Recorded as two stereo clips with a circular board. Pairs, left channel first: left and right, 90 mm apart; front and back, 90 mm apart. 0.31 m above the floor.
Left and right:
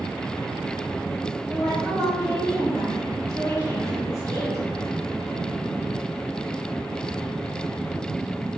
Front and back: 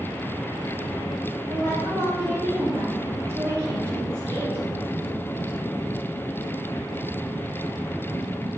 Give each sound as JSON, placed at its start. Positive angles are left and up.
{"t": 1.5, "sound": "a woman speaking", "azimuth_deg": -125, "distance_m": 1.8}